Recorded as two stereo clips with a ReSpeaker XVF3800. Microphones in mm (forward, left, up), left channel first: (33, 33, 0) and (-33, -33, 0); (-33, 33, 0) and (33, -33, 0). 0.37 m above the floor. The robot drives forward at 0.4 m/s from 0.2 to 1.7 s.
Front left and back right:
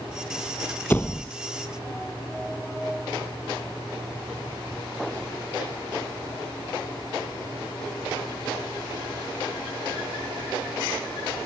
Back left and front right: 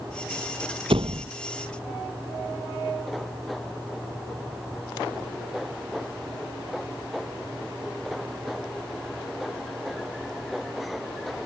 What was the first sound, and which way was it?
A door slam, 25° right.